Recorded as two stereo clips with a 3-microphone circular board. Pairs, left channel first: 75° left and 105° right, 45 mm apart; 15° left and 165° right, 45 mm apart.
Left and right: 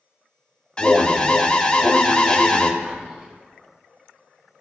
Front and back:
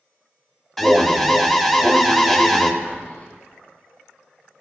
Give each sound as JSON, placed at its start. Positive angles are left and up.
{"t": 0.8, "sound": "an alarm", "azimuth_deg": 100, "distance_m": 0.6}
{"t": 2.8, "sound": "whispering", "azimuth_deg": -30, "distance_m": 1.1}